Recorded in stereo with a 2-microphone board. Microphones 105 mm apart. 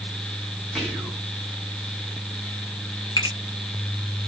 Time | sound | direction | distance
0.8 | whispering | 5° left (ahead or behind) | 2.0 m
3.2 | a finger snap | 50° left (ahead or behind) | 1.8 m